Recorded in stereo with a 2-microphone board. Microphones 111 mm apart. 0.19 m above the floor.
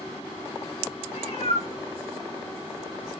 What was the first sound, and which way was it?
A cat meowing, 65° left (ahead or behind).